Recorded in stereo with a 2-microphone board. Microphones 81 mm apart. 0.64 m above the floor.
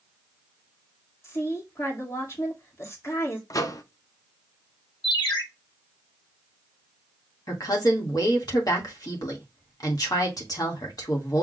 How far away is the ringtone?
About 4.5 m.